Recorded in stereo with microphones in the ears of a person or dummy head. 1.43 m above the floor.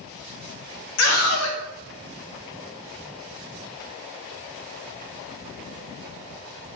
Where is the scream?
80° left, 1.1 m.